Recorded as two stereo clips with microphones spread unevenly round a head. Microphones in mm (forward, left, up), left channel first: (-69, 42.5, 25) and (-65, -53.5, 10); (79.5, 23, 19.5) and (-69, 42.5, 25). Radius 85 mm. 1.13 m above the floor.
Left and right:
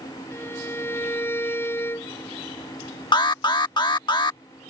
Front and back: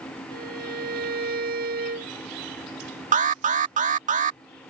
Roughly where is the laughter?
I don't hear laughter.